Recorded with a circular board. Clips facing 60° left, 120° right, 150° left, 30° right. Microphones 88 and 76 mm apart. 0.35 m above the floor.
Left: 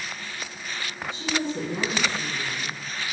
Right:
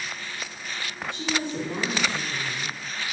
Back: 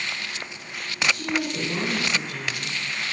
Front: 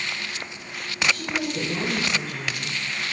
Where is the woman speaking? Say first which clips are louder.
Left 1 dB, back 2 dB; 135° right, 3 m.